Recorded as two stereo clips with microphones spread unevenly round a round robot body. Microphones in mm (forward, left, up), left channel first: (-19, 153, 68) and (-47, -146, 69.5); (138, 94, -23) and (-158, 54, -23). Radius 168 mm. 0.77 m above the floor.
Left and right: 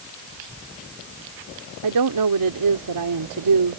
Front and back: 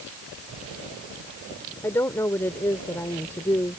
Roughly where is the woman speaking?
Right.